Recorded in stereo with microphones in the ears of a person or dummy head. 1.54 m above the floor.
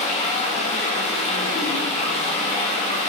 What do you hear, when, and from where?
0.0 s running water: 30° left (ahead or behind), 1.1 m